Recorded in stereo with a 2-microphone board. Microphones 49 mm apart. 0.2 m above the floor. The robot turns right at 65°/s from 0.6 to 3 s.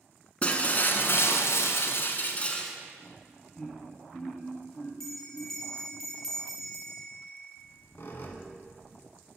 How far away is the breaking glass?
About 0.6 m.